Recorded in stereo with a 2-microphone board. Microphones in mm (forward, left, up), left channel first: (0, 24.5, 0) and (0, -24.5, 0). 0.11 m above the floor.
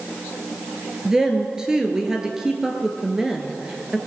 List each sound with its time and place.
1.1 s a woman speaking: 15° right (ahead or behind), 1.5 m